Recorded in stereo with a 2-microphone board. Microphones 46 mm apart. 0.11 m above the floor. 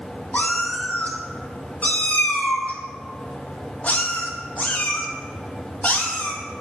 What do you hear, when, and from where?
0.3 s a cat meowing: 35° left (ahead or behind), 1.1 m